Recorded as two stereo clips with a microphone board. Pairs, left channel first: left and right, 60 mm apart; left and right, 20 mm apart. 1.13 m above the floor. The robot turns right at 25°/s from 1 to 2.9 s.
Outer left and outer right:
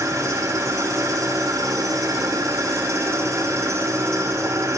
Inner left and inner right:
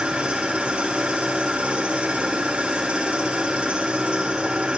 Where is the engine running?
110° right, 6 m; by 4.8 s 60° right, 6 m.